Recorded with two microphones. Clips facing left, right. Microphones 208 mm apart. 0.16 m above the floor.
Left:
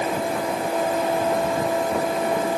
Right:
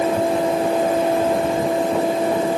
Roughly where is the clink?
I don't hear a clink.